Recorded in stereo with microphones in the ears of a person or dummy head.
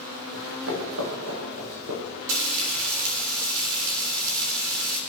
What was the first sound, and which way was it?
Running footsteps, 70° right (ahead or behind).